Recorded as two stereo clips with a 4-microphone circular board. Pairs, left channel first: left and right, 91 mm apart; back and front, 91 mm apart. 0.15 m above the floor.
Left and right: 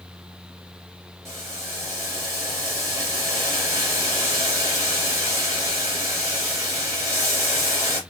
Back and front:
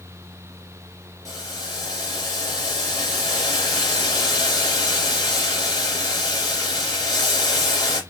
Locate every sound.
1.2 s boiling: 145° right, 2.5 m